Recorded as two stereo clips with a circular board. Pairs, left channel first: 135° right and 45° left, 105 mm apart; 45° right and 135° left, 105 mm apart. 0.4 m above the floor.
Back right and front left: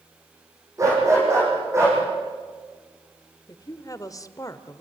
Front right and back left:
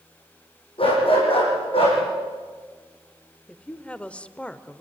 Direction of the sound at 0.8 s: 15° right.